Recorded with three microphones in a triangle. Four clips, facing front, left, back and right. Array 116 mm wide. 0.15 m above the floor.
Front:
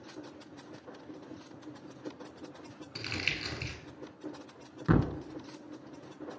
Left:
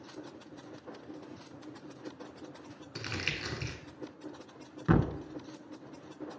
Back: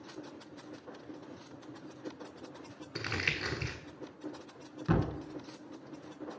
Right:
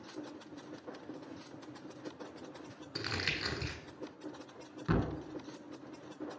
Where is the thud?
50° left, 0.7 m.